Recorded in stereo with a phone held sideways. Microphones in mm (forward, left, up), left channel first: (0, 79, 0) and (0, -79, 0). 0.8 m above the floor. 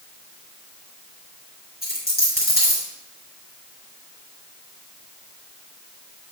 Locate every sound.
1.8 s a dropped coin: 85° left, 5 m